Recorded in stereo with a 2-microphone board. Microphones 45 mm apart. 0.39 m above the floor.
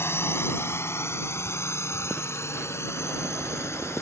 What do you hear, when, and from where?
0.0 s a drone: 60° left (ahead or behind); by 4.0 s 70° left (ahead or behind)